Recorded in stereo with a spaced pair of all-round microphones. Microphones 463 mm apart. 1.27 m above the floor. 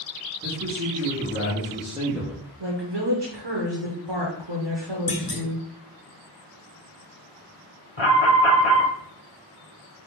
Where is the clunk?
45° left (ahead or behind), 0.9 m.